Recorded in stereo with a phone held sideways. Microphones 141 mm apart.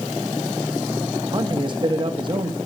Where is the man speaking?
35° right (ahead or behind), 1.7 m.